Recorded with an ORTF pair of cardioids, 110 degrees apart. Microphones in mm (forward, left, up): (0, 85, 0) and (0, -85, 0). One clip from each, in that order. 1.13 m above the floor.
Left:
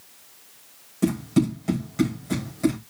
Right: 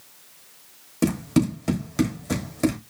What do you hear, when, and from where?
1.0 s running footsteps: 55° right, 3.5 m